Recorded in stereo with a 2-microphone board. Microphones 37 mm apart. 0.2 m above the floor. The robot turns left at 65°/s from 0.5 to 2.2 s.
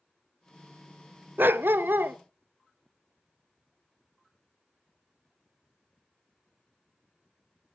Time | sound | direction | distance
1.4 | a dog barking | 70° right | 0.7 m